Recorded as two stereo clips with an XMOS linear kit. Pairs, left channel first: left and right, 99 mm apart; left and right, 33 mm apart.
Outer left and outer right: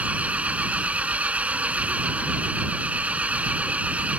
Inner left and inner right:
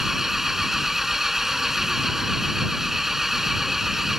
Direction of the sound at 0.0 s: 15° right (ahead or behind).